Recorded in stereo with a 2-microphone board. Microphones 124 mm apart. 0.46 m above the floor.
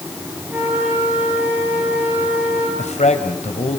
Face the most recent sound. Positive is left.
turn(degrees=65)  # may be behind; listen again after turning